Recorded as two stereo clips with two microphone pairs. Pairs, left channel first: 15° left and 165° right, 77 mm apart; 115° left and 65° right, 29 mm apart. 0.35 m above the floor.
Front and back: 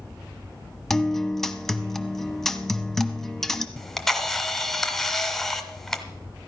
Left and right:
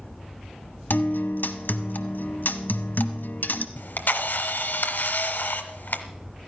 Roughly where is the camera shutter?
Left.